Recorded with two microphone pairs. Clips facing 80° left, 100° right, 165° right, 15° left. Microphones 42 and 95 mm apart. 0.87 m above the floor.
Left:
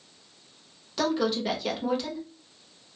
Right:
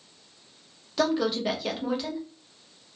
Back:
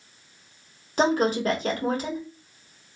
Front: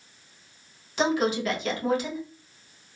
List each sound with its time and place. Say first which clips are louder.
1.0 s a woman speaking: right 1 dB, back 2 dB; 170° left, 1.1 m